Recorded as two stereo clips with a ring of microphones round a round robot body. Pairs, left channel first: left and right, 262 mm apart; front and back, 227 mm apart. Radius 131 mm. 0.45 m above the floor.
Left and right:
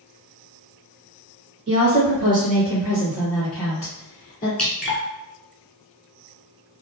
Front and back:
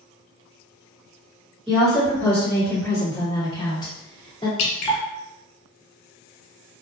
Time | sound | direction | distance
1.7 | a woman speaking | 90° right | 1.6 m
4.6 | dripping | 5° left | 0.8 m